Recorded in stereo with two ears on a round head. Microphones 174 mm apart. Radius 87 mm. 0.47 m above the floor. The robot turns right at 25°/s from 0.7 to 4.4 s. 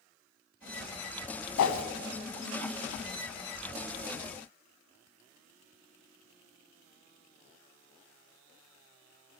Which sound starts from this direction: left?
A whoosh, at 1.6 s.